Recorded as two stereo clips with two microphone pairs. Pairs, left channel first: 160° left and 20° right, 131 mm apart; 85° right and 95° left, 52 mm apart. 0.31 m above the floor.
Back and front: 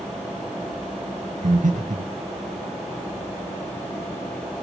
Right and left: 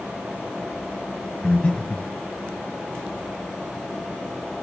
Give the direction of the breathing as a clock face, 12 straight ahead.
12 o'clock.